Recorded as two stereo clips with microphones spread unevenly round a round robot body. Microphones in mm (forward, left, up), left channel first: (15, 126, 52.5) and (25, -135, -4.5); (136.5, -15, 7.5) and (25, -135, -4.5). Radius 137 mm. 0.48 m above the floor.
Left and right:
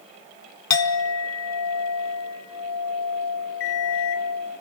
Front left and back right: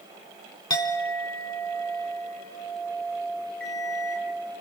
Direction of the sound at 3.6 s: 110° left.